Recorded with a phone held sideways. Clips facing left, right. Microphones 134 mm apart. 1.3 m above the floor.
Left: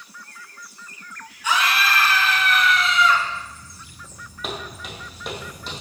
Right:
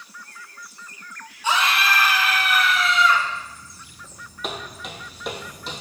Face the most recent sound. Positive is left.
turn(degrees=0)  # may be behind; listen again after turning